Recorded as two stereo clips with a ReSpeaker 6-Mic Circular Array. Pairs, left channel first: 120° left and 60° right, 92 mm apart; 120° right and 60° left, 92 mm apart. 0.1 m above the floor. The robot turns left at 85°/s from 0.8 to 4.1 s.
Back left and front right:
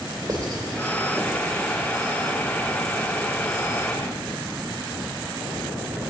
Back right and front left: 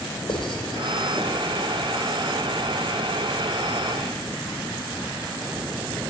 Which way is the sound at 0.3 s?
110° right.